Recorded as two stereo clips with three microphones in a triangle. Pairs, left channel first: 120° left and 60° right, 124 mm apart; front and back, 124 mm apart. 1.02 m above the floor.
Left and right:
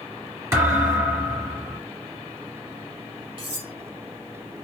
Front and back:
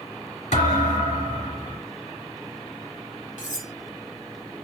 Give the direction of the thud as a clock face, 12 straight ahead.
12 o'clock.